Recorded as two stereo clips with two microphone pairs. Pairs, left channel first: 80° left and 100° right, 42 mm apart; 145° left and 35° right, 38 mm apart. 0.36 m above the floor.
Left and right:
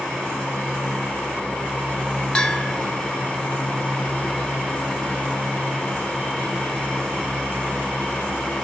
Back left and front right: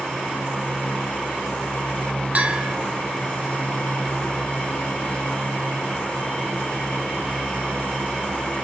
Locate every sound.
2.4 s a bell: 10° left, 0.8 m